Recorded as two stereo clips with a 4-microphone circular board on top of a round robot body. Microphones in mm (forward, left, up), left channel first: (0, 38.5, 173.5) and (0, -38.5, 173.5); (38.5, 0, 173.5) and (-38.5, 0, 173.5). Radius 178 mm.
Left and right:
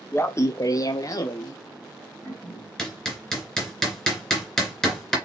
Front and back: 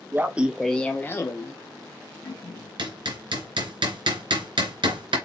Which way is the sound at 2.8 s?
175° left.